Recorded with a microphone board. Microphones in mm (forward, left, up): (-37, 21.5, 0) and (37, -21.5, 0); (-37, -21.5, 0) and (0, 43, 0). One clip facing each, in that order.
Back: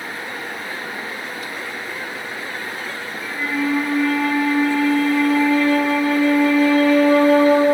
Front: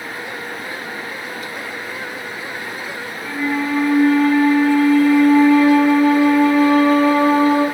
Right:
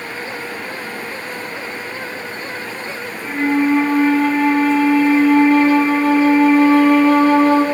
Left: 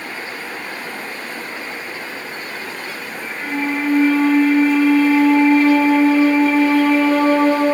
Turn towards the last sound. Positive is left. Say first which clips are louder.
# front 2 dB, right 7 dB
turn(degrees=-80)